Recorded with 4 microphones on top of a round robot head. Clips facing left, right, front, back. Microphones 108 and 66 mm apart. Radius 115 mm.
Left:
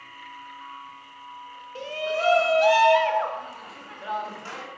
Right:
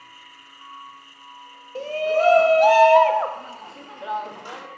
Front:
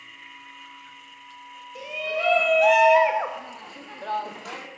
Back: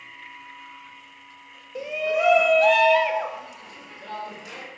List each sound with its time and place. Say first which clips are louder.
1.8 s a shout: right 7 dB, back 5 dB; 130° right, 1.8 m; by 4.7 s 15° right, 3 m